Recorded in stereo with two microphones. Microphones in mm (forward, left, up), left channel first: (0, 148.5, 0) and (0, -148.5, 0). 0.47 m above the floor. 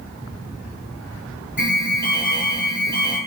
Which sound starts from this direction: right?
An alarm, at 1.6 s.